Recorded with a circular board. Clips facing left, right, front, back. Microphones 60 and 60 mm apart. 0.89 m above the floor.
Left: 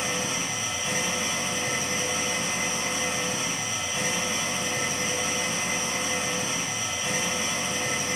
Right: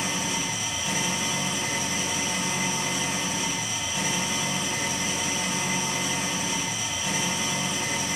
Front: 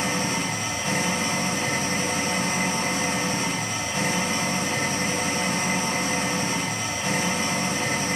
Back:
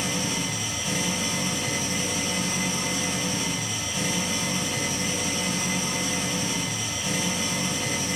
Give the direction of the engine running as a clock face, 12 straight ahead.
11 o'clock.